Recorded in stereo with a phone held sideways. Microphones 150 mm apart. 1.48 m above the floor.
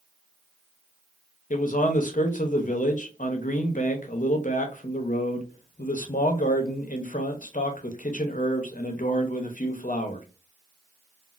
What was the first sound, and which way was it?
A man speaking, 60° left (ahead or behind).